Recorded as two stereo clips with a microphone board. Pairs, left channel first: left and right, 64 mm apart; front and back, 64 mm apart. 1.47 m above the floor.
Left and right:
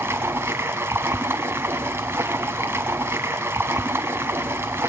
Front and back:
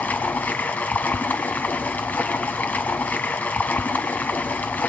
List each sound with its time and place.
0.0 s running water: 55° right, 1.8 m